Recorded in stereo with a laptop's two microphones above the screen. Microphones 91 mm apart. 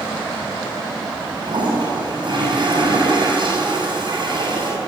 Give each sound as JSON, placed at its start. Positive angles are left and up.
{"t": 1.4, "sound": "a toilet flushing", "side_deg": -55, "distance_m": 8.5}